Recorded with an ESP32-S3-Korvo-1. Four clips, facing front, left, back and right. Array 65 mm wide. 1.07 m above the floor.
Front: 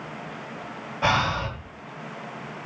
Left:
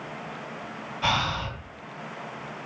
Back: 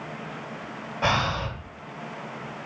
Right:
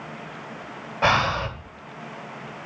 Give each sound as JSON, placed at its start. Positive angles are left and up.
{"t": 1.0, "sound": "breathing", "azimuth_deg": -85, "distance_m": 2.0}